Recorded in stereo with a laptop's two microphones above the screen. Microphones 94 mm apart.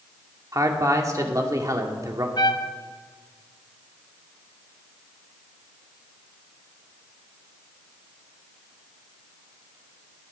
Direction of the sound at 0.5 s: 35° right (ahead or behind).